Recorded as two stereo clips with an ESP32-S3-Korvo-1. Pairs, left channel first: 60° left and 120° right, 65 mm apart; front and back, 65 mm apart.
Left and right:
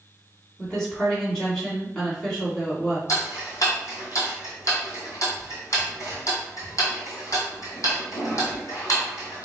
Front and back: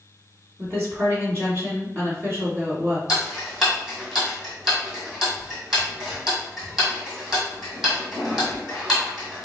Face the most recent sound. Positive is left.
turn(degrees=95)